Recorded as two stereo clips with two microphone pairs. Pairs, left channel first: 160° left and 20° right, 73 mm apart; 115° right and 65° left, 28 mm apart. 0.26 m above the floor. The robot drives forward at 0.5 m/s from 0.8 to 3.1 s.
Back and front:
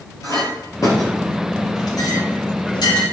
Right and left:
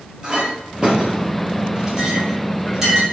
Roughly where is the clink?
Behind left.